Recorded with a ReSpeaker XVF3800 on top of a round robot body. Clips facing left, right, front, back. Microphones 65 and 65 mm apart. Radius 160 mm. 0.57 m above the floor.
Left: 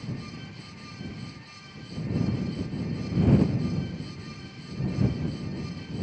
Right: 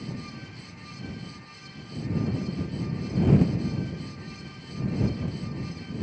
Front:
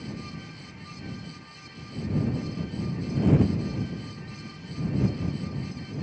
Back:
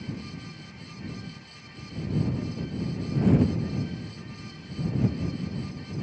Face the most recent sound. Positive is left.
No sound to turn to.